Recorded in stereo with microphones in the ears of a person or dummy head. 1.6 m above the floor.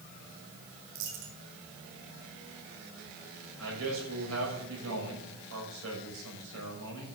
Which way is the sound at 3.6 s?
85° right.